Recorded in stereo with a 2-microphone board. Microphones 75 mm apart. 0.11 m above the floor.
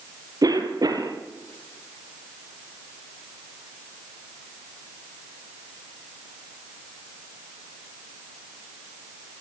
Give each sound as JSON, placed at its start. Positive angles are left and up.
{"t": 0.4, "sound": "a cough", "side_deg": -55, "distance_m": 3.5}